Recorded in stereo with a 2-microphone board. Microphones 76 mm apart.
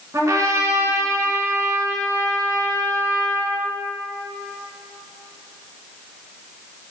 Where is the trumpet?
40° right (ahead or behind), 1.0 m.